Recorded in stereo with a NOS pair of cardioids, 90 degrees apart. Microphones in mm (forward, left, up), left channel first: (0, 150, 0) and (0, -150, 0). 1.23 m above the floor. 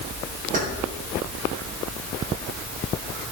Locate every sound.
0.5 s keys jangling: 25° right, 6 m